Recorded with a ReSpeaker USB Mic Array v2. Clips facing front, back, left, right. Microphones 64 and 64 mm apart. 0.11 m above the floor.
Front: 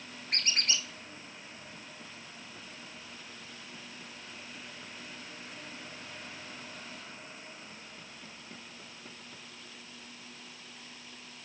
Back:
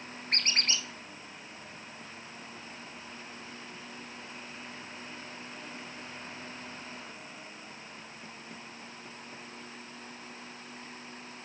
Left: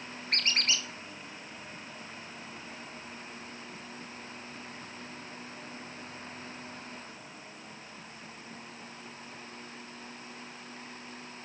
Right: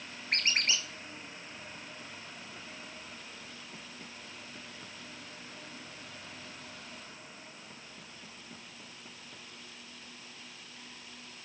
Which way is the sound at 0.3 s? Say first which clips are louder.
Back 1 dB, even; 155° right.